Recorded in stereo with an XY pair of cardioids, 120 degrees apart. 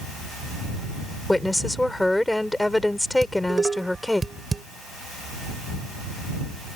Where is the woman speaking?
5° left.